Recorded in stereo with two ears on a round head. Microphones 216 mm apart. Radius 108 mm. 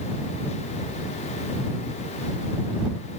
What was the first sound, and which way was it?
Only background noise.